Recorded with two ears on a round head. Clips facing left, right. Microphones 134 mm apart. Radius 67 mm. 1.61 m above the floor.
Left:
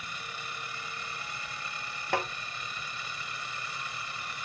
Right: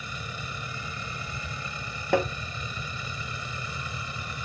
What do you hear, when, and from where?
0.0 s a vehicle: 80° right
2.1 s tapping: 75° right (ahead or behind)